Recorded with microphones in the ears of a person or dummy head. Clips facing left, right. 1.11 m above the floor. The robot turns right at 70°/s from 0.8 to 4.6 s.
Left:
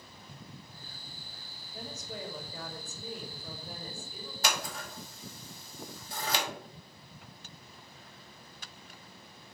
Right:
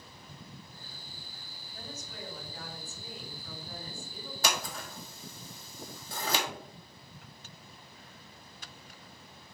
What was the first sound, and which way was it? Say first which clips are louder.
A woman speaking: left 4 dB; 20° left.